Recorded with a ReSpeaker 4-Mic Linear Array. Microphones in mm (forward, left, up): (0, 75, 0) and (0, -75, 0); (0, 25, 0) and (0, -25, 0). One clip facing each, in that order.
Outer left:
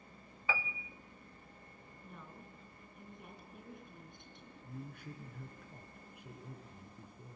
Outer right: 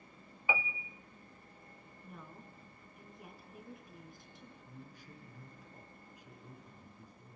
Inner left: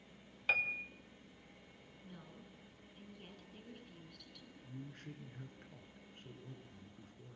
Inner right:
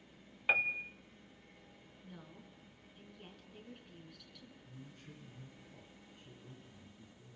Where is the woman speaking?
Centre (ahead or behind), 3.5 m.